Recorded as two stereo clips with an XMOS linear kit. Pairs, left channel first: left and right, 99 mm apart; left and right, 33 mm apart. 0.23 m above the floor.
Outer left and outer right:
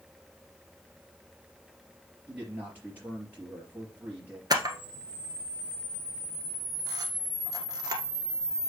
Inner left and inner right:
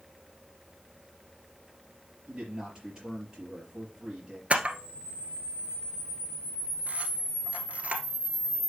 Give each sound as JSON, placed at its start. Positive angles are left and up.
{"t": 2.3, "sound": "a man speaking", "side_deg": -20, "distance_m": 4.0}
{"t": 4.5, "sound": "a camera shutter", "side_deg": -45, "distance_m": 1.4}